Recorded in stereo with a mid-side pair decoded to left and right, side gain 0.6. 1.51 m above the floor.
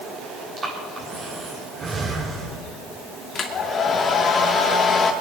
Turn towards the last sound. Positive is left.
turn(degrees=40)